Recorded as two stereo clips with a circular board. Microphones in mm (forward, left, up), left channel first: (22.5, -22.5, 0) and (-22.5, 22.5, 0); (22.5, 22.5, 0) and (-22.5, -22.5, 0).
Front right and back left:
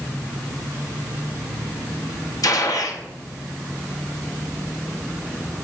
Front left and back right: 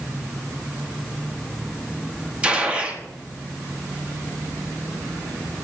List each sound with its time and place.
2.4 s a gunshot: 65° right, 1.0 m